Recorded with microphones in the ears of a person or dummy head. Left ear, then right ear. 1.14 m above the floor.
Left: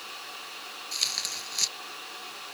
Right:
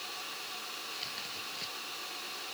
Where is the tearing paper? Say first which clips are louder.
Left 14 dB; 85° left.